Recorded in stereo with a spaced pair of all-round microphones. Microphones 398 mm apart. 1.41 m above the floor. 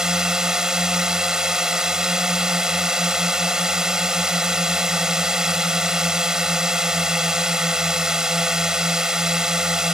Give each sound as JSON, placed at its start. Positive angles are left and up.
{"t": 0.0, "sound": "a drone", "side_deg": 0}